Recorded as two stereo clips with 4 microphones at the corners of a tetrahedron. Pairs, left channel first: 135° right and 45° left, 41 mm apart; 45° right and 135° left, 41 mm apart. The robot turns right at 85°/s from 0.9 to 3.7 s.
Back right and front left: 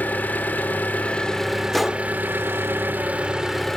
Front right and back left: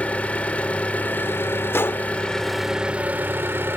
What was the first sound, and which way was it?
An engine running, 95° right.